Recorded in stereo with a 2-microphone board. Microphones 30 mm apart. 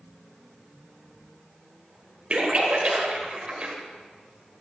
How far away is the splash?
About 1.8 m.